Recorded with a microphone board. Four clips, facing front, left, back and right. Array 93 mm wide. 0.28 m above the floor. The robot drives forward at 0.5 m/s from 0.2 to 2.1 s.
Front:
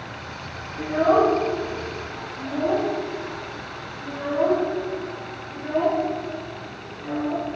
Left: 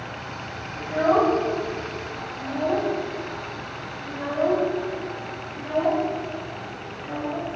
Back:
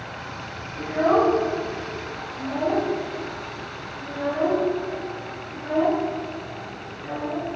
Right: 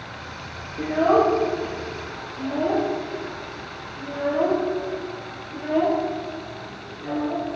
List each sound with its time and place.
0.8 s a child speaking: 80° right, 4 m; by 7.5 s 90° right, 3.5 m